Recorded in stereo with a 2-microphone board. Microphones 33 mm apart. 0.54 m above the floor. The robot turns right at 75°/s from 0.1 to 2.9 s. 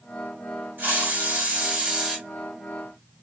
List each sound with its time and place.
0.8 s a hiss: 110° right, 1.5 m; by 2.2 s 5° right, 1.5 m